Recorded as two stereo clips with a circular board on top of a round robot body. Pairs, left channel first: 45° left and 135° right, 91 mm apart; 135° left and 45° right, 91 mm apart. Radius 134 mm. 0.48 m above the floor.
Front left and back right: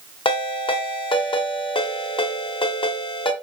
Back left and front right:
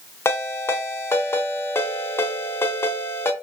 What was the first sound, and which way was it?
A ringtone, 70° left.